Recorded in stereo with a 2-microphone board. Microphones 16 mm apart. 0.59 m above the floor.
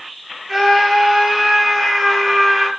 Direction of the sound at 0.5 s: 15° right (ahead or behind).